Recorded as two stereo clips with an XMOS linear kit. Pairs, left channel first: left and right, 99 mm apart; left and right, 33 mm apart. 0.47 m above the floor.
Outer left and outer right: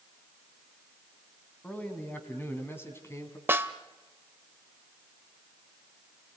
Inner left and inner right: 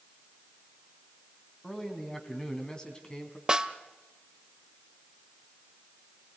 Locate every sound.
1.6 s a man speaking: 15° left (ahead or behind), 3.5 m; by 3.4 s 30° left (ahead or behind), 3.5 m
3.5 s a snare drum: 20° right (ahead or behind), 0.9 m